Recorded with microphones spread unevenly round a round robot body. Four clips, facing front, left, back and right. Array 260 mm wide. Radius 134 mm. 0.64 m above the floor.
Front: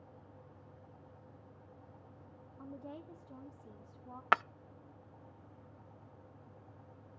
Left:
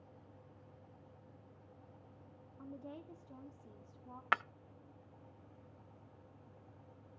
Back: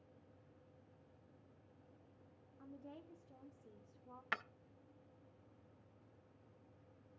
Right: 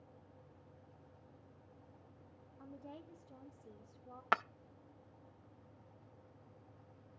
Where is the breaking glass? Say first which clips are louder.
Right 1 dB, front 15 dB; 10° right, 0.5 m.